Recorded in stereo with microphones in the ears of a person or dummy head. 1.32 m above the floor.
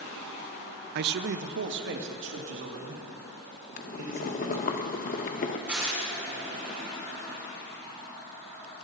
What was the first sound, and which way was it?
A man speaking, 55° right (ahead or behind).